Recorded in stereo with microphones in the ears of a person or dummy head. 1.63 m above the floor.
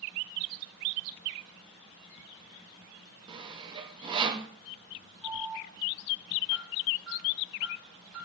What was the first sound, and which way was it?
Sawing, 25° right (ahead or behind).